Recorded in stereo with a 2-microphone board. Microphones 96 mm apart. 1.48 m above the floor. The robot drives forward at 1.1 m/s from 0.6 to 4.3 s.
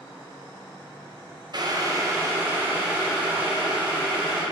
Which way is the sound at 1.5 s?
50° right (ahead or behind).